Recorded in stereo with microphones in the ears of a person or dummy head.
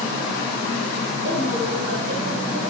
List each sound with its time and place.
1.2 s a woman speaking: 40° right (ahead or behind), 4 m